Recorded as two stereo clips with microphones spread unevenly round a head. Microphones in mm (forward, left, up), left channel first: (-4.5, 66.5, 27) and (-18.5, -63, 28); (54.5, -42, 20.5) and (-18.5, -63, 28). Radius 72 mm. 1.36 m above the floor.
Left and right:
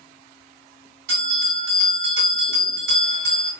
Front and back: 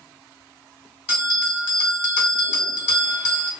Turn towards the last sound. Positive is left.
turn(degrees=-100)